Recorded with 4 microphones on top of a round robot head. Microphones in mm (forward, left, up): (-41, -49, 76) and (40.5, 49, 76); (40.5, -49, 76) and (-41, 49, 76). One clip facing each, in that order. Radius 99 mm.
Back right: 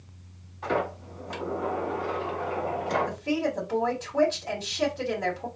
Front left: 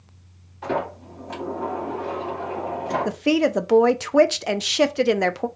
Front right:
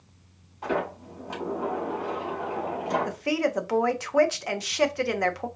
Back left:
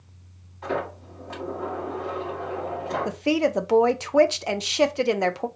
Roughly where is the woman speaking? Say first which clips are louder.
Front left 8 dB, back left 4 dB; ahead left.